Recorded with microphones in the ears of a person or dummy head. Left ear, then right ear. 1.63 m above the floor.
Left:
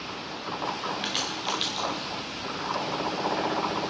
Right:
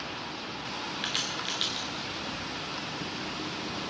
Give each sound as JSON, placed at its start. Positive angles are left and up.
{"t": 1.0, "sound": "a crack", "side_deg": 5, "distance_m": 2.0}